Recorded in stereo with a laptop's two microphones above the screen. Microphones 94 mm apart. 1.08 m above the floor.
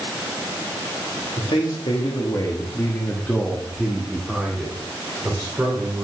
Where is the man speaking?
80° left, 1.8 m; by 6.0 s 20° right (ahead or behind), 4 m.